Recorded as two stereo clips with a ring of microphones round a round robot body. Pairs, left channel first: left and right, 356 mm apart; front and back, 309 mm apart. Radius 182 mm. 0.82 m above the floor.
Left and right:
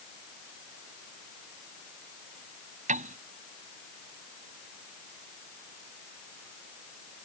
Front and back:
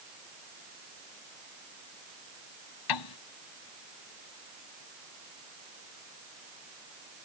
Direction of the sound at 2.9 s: 20° right.